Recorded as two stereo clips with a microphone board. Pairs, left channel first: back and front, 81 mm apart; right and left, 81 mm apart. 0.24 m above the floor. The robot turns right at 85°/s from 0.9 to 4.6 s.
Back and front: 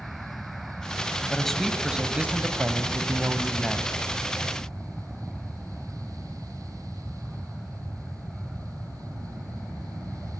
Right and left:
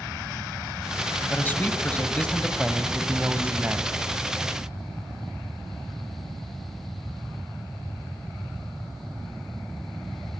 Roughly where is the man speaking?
Behind right.